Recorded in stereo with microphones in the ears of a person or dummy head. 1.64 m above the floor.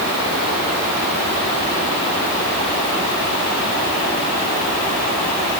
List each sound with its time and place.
Only background noise.